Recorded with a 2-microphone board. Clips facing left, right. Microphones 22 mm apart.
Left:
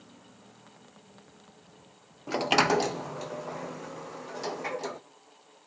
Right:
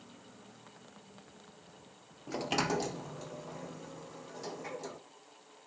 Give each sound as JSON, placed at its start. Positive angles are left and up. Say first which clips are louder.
{"t": 2.3, "sound": "a sliding door", "louder": "left 9 dB", "side_deg": 45, "distance_m": 0.6}